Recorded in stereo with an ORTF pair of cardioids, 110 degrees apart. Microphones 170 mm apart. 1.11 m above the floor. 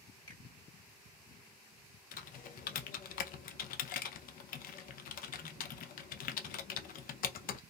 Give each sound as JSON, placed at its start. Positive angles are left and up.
{"t": 0.3, "sound": "a finger snap", "azimuth_deg": 20, "distance_m": 1.7}
{"t": 2.1, "sound": "typing on a keyboard", "azimuth_deg": 55, "distance_m": 0.5}